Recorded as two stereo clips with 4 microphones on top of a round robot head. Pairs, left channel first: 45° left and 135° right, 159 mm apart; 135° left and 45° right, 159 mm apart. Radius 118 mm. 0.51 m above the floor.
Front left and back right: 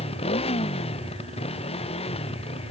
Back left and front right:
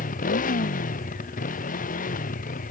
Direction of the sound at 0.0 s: 100° left.